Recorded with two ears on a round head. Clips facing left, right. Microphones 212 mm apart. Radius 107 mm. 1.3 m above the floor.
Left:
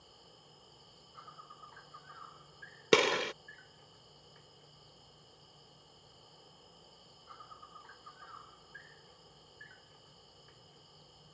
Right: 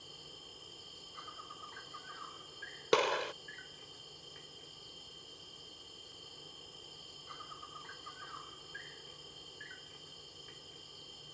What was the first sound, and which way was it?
An insect, 40° right (ahead or behind).